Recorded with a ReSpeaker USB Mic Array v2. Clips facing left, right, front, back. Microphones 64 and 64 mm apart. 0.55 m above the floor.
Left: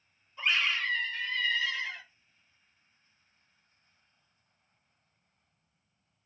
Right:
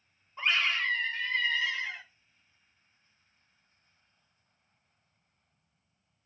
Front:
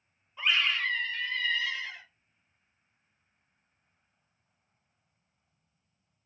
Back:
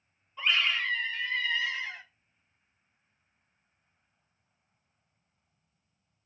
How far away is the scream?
About 1.3 m.